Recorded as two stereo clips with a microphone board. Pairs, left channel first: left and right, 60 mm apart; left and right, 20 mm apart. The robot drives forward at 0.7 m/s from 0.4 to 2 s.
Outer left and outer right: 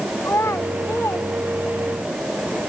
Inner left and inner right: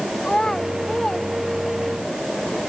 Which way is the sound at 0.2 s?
45° left (ahead or behind).